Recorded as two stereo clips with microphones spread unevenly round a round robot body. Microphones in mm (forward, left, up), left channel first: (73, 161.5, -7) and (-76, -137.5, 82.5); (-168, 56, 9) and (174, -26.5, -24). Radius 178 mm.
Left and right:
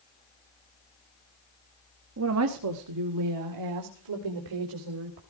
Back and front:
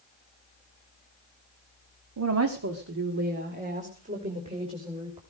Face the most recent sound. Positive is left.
turn(degrees=-90)